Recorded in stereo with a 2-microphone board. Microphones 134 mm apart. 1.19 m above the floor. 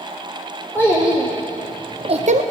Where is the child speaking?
10° right (ahead or behind), 1.8 m; by 2.4 s 65° right (ahead or behind), 0.5 m.